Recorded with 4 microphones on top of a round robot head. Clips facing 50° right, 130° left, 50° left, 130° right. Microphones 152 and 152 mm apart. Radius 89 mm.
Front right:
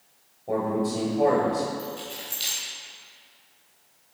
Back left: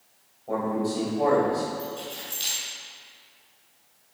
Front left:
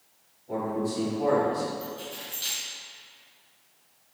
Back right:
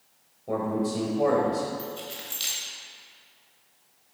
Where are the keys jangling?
135° right, 3 m.